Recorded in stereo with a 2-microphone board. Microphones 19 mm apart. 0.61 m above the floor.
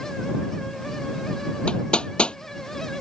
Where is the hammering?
65° left (ahead or behind).